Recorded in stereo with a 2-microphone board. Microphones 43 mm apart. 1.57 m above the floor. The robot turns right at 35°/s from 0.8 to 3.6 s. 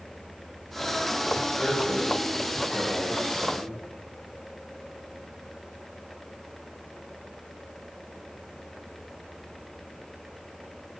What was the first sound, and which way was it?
A man speaking, 160° left.